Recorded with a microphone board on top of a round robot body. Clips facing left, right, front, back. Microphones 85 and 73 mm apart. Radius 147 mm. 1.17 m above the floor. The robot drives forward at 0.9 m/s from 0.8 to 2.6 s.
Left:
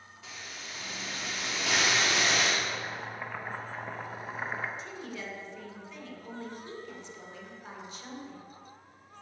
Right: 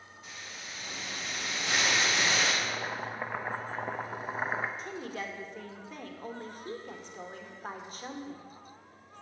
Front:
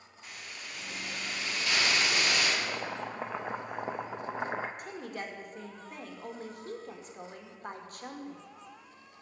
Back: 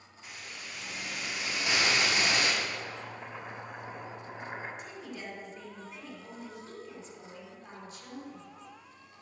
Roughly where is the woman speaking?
Ahead right.